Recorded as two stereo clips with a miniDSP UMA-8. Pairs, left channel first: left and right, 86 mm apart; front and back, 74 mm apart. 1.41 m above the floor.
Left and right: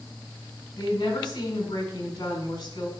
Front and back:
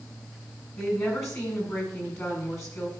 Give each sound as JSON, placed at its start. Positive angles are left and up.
{"t": 0.8, "sound": "a woman speaking", "azimuth_deg": 50, "distance_m": 4.5}